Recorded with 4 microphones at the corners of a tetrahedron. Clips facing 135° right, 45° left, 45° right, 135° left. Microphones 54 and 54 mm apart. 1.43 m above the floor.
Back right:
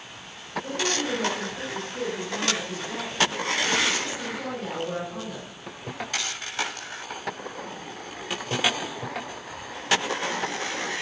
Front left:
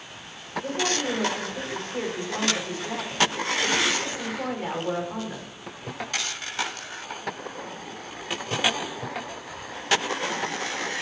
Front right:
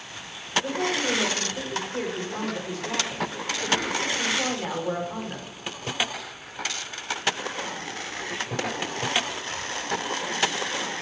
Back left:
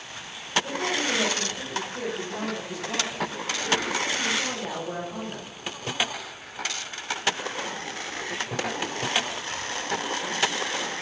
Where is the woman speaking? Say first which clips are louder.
Front left 1 dB, front right 1 dB; 5° right, 4.5 m.